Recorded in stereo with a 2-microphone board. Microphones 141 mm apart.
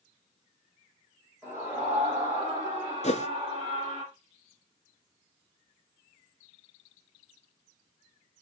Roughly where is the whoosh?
Left.